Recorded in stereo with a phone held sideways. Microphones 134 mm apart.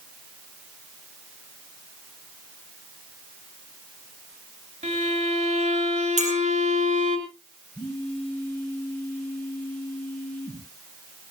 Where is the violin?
65° right (ahead or behind), 3.5 m.